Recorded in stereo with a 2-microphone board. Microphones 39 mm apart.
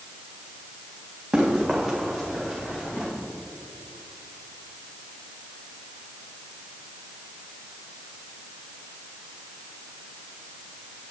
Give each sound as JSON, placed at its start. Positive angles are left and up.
{"t": 1.3, "sound": "running footsteps", "side_deg": -10, "distance_m": 4.0}